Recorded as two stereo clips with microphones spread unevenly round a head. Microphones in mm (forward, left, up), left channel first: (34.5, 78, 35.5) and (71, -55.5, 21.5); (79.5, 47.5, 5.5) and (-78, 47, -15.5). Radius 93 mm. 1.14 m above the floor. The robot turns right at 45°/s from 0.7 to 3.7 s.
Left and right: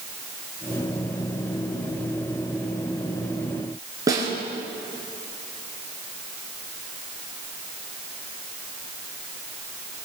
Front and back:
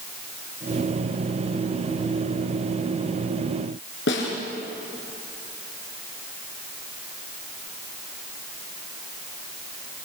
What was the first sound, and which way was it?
A snare drum, 10° right.